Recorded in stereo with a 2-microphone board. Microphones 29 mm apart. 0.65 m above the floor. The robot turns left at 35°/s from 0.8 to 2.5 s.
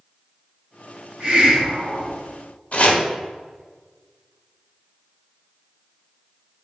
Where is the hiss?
130° right, 2.0 m; by 2.2 s 165° right, 2.0 m.